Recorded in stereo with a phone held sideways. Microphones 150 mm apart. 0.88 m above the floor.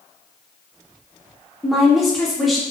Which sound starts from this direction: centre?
A woman speaking, at 1.6 s.